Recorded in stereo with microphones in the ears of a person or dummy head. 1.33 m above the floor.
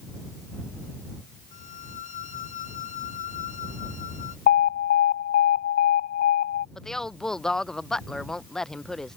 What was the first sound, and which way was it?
A violin, 45° left (ahead or behind).